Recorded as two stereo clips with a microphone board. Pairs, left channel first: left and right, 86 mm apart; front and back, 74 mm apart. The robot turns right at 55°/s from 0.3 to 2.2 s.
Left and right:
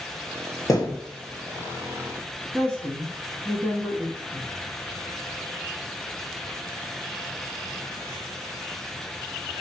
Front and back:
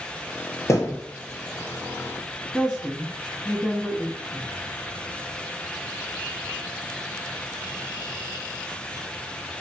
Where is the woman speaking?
80° right, 1.6 m.